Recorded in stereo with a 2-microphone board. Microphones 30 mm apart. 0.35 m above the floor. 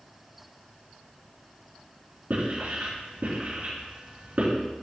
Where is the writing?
55° right (ahead or behind), 3.5 m.